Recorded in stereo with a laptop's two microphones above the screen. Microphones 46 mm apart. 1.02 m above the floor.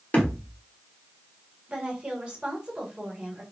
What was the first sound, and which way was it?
A thud, 35° left (ahead or behind).